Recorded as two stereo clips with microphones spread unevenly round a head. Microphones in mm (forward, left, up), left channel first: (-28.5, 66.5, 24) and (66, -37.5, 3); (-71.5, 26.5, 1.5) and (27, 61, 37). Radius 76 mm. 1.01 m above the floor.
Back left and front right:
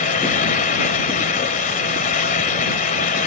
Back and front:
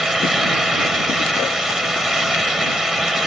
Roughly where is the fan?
Left.